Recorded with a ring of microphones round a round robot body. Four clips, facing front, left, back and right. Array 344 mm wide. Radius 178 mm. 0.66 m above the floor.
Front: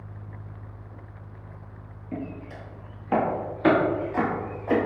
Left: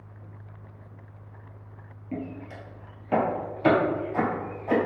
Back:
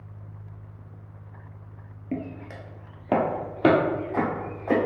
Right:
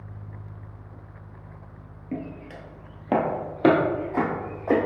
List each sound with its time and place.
2.1 s footsteps: 160° right, 1.0 m; by 4.8 s 115° right, 1.9 m